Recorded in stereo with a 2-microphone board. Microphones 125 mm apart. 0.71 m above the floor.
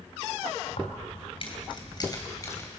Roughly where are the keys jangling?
Left.